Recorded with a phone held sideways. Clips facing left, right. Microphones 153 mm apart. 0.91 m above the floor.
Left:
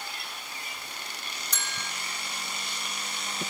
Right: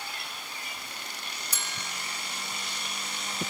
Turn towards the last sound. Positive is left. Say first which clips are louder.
# left 2 dB
turn(degrees=-10)  # may be behind; listen again after turning